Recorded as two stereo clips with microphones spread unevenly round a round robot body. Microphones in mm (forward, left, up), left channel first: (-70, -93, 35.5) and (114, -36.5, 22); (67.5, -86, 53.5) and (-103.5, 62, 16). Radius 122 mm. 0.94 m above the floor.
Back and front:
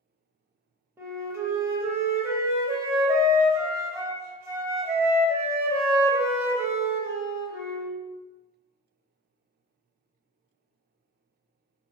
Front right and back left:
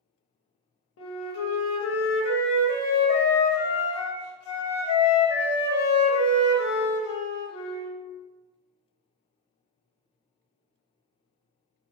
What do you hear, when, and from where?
1.0 s a flute: 55° right, 0.6 m